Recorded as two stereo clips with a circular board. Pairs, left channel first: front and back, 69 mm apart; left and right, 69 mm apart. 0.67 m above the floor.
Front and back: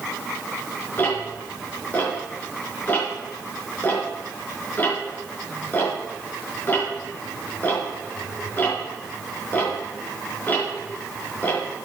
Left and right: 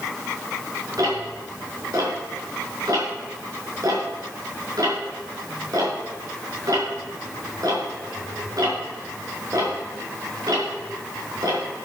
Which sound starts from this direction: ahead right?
Ticking, at 1.0 s.